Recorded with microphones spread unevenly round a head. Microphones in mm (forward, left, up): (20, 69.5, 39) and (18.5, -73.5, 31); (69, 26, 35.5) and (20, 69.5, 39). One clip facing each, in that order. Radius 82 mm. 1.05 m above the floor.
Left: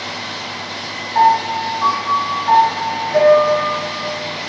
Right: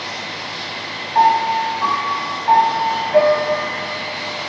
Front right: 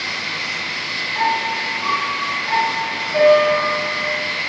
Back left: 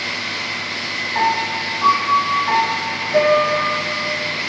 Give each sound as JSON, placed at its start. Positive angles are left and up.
{"t": 1.1, "sound": "a piano", "azimuth_deg": -160, "distance_m": 5.5}